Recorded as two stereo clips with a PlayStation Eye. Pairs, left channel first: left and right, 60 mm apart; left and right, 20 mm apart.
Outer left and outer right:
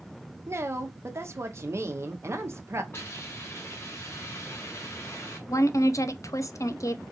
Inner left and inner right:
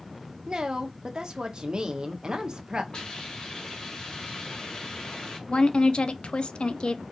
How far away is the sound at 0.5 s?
About 1.0 m.